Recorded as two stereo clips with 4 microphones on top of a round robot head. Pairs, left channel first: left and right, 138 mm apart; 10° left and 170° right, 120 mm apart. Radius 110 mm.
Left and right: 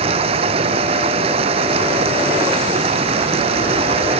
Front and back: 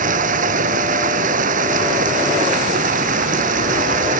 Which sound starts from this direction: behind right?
Running water, at 0.0 s.